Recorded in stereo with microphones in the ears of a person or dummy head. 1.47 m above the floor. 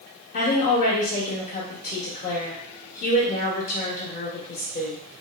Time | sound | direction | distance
0.3 | a woman speaking | 45° left (ahead or behind) | 1.0 m